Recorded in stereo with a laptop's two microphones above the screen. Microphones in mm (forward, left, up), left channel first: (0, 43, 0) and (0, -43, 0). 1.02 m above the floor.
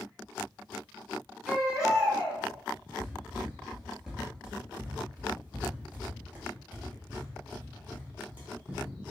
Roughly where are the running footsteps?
Centre.